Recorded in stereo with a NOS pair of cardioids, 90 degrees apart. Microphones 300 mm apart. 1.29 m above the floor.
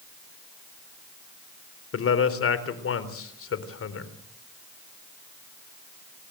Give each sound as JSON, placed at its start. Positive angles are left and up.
{"t": 1.9, "sound": "a man speaking", "azimuth_deg": 45, "distance_m": 4.0}